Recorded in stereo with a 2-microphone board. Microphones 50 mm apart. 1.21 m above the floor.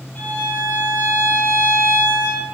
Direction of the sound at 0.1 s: 40° left (ahead or behind).